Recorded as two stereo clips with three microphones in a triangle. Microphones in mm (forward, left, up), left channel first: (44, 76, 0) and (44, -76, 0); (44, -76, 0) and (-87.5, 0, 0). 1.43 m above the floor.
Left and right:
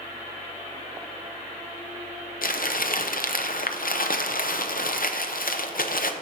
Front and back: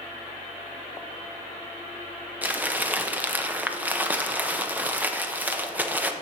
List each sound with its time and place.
2.4 s crumpling: 70° left, 0.6 m